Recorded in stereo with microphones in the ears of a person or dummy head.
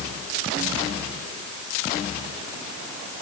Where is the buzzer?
No buzzer in this recording.